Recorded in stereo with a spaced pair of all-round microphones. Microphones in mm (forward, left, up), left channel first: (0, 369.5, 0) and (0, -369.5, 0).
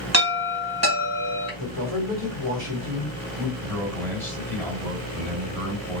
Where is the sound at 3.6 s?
5° left (ahead or behind), 2.5 m.